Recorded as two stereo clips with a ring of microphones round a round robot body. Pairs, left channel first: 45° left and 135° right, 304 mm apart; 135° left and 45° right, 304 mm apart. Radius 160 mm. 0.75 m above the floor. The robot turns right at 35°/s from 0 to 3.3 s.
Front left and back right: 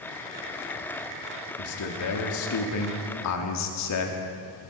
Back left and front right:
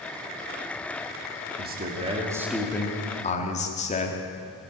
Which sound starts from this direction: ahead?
A man speaking, at 1.6 s.